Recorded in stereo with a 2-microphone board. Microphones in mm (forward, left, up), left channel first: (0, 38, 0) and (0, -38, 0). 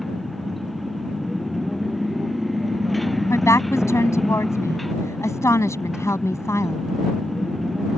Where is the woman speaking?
40° left (ahead or behind).